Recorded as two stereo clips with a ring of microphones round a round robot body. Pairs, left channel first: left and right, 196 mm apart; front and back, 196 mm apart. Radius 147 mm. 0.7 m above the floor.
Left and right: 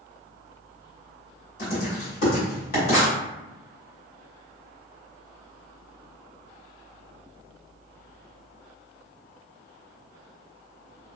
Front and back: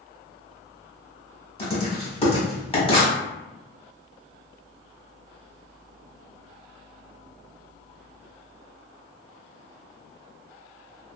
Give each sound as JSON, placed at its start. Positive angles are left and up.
{"t": 1.6, "sound": "writing", "azimuth_deg": 60, "distance_m": 1.6}